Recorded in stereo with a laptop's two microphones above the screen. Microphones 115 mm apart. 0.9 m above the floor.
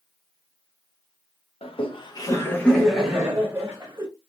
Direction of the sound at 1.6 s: 55° left (ahead or behind).